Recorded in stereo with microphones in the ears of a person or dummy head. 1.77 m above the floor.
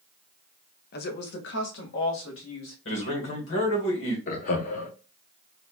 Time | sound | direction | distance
0.9 | a woman speaking | 55° left (ahead or behind) | 0.7 m
2.9 | a man speaking | 75° left (ahead or behind) | 1.5 m
4.3 | laughter | 45° left (ahead or behind) | 0.6 m